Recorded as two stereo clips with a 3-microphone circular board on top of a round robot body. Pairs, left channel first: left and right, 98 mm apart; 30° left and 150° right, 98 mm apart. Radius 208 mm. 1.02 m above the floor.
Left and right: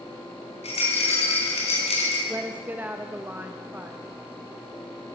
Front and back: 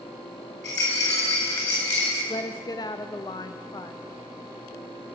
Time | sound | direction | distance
0.6 | a rattle | 90° left | 4.5 m
2.3 | a woman speaking | 20° right | 0.5 m